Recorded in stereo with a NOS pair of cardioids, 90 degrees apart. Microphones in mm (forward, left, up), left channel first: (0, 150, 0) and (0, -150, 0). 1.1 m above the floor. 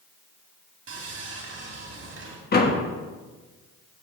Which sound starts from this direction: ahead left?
A door slam, at 2.5 s.